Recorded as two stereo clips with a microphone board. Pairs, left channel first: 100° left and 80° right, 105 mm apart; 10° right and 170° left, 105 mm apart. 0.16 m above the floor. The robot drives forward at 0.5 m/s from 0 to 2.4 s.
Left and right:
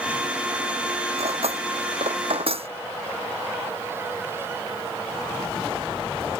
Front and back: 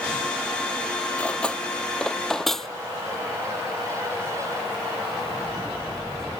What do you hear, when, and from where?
1.2 s cutlery clinking: 90° right; by 2.7 s 100° right